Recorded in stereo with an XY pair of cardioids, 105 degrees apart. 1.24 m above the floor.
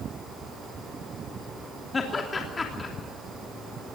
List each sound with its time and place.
1.9 s laughter: 35° left, 3 m